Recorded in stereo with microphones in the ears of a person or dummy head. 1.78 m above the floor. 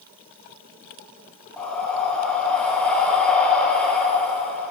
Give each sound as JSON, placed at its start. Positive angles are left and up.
{"t": 1.6, "sound": "breathing", "side_deg": 5, "distance_m": 0.6}